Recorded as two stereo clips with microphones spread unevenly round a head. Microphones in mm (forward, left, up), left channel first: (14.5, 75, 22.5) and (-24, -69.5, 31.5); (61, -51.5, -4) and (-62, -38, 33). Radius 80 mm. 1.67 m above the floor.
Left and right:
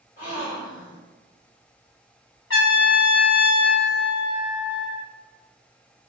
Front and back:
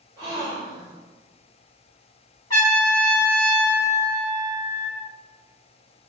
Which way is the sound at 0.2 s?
115° left.